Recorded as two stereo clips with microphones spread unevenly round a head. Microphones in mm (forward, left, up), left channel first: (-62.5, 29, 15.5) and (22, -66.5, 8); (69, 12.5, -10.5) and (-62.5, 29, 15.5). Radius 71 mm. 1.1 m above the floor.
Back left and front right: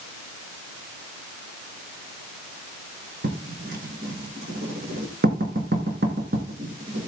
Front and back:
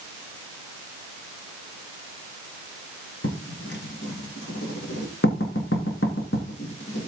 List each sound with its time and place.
3.2 s writing: 20° right, 3 m